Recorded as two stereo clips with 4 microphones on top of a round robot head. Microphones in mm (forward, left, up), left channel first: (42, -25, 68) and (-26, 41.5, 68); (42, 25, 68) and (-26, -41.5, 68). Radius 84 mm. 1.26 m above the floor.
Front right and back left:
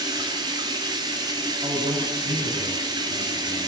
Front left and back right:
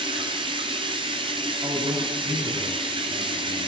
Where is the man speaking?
170° left, 10 m.